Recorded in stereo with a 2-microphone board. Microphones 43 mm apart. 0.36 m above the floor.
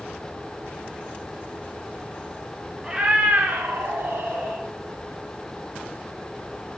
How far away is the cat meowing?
About 0.6 m.